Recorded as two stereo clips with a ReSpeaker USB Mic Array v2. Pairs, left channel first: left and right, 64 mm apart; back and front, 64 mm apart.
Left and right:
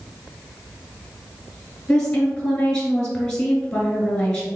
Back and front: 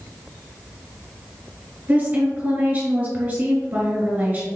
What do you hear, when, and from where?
1.9 s a woman speaking: 20° left, 1.7 m